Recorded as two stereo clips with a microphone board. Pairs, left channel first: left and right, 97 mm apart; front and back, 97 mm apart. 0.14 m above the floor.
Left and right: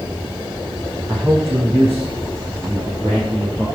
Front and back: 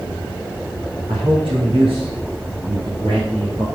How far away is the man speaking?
About 6 m.